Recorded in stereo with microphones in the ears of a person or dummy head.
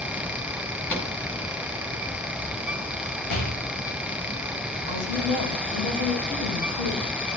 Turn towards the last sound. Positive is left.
turn(degrees=70)  # may be behind; listen again after turning